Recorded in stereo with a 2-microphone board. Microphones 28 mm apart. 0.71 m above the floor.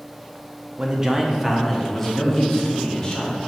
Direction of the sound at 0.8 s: 30° right (ahead or behind).